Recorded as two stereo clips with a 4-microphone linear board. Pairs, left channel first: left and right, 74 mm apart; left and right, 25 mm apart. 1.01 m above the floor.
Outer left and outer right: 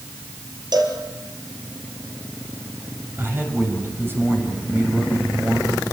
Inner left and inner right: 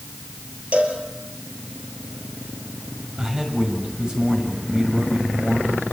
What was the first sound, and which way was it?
A cowbell, 65° right (ahead or behind).